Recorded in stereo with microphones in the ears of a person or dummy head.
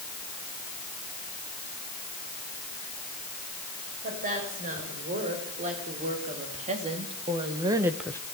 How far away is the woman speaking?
About 7 m.